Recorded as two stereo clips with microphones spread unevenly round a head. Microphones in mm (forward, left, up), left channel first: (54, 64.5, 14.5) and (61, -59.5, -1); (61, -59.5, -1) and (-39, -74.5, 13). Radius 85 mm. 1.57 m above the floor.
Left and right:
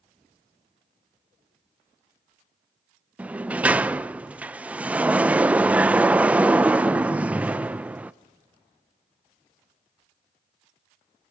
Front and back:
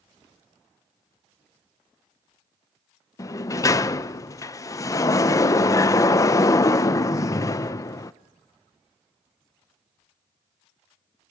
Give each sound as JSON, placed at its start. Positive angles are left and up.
{"t": 3.2, "sound": "a sliding door", "azimuth_deg": -5, "distance_m": 0.6}